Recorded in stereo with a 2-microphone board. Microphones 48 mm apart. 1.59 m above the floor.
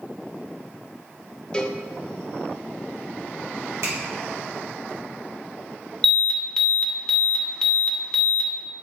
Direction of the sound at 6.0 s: 15° left (ahead or behind).